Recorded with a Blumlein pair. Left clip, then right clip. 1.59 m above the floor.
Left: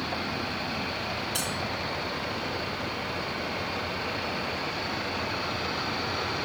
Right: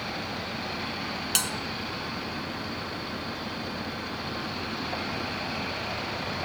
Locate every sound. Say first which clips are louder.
1.4 s a bell: right 7 dB; 40° right, 1.3 m